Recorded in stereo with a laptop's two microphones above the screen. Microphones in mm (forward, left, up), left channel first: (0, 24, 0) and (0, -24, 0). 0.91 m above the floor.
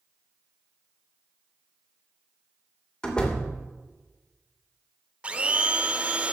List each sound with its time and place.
3.0 s a door slam: 15° left (ahead or behind), 3 m
5.2 s a blender: 20° right (ahead or behind), 0.7 m